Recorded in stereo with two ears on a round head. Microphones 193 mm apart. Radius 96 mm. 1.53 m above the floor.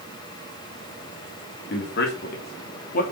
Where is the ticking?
No ticking in this recording.